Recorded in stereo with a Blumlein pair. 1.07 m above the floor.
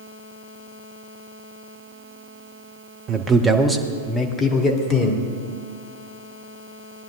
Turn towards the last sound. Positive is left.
turn(degrees=35)